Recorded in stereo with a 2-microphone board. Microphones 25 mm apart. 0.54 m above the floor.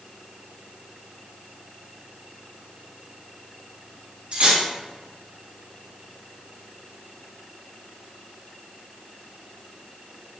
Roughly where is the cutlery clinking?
Right.